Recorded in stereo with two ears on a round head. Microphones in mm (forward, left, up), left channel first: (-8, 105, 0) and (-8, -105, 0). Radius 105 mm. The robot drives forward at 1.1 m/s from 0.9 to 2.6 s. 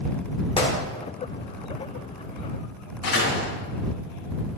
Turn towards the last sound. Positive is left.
turn(degrees=55)  # may be behind; listen again after turning